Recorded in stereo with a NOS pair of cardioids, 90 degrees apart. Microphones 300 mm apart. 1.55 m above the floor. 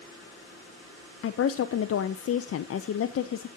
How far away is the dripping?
I don't hear dripping.